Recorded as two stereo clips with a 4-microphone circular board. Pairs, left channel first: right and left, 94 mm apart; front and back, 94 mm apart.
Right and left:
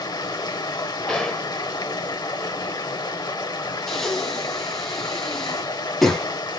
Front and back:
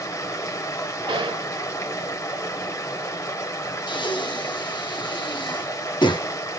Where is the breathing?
5° right, 0.8 m.